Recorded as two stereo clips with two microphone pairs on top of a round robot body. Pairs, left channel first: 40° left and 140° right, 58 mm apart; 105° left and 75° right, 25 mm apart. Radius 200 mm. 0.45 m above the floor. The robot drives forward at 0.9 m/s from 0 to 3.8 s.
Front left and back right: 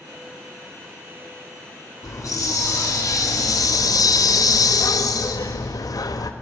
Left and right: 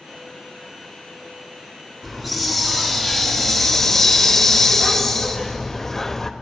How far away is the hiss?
About 2.5 m.